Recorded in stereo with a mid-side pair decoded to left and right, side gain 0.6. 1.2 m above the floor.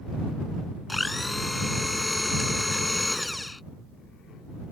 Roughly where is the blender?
Ahead.